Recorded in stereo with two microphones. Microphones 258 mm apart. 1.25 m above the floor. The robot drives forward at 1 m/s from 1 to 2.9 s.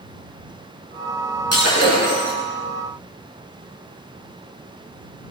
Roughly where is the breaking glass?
Right.